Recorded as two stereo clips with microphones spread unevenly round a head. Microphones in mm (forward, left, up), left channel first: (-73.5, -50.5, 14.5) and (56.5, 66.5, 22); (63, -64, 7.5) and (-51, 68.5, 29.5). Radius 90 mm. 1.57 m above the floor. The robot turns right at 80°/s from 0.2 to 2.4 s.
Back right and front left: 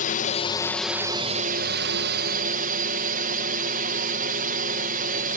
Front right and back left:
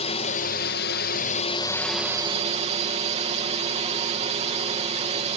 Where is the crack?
I don't hear a crack.